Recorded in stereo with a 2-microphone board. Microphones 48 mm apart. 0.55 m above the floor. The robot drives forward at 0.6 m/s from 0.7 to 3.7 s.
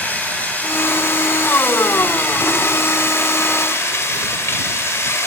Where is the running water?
35° left (ahead or behind), 3 m; by 5.3 s 65° left (ahead or behind), 1.9 m.